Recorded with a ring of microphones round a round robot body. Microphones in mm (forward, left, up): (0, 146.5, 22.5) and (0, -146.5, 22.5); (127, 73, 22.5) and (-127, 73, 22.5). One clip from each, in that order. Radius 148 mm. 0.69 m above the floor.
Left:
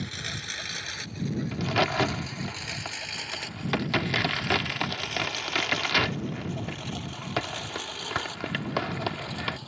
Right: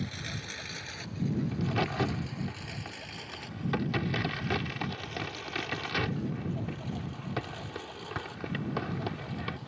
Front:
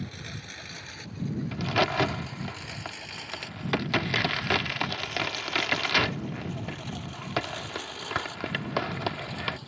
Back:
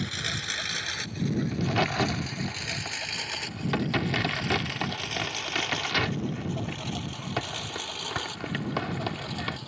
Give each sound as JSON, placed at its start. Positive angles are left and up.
{"t": 0.0, "sound": "a lawn mower", "azimuth_deg": 155}
{"t": 1.5, "sound": "a crack", "azimuth_deg": 50}